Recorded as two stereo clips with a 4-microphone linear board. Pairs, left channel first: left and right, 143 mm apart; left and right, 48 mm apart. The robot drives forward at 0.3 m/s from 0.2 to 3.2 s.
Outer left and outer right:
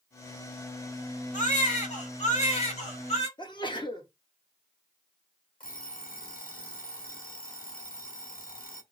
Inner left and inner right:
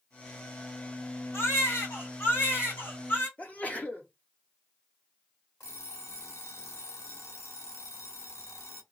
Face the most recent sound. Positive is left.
turn(degrees=80)